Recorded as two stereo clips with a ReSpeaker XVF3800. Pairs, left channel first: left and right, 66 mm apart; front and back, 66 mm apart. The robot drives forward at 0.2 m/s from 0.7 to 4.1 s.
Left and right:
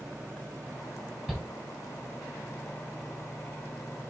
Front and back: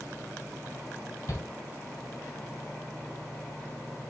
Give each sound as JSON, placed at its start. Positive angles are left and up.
{"t": 1.3, "sound": "a shout", "azimuth_deg": -20, "distance_m": 1.8}